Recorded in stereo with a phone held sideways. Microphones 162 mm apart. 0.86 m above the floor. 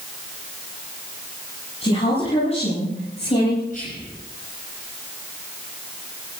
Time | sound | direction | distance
1.8 | a woman speaking | 40° left (ahead or behind) | 9 m
3.7 | whispering | 55° left (ahead or behind) | 6.5 m